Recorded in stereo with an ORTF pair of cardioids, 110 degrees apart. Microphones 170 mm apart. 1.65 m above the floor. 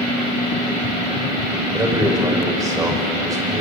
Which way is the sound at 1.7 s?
20° right.